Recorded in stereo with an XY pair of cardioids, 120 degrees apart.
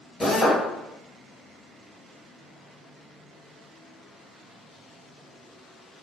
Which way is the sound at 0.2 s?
20° left.